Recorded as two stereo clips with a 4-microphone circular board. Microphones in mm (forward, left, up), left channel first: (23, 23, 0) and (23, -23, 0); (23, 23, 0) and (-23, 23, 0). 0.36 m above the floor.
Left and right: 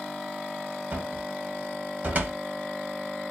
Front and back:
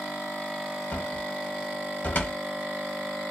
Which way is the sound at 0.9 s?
40° right.